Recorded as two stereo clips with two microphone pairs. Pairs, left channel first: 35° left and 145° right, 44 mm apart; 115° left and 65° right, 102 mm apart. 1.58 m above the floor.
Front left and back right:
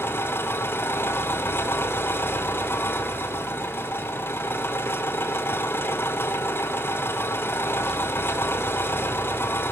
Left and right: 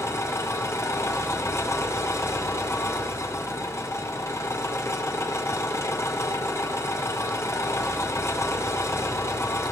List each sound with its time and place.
0.0 s an engine running: 55° left, 2.5 m